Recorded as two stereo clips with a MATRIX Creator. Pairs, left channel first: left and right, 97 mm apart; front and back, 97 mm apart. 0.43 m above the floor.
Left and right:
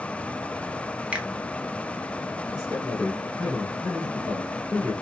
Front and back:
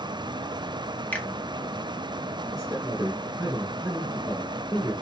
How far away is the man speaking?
About 2 m.